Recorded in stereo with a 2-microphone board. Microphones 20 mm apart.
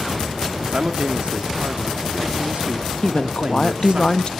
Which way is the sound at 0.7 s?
60° right (ahead or behind).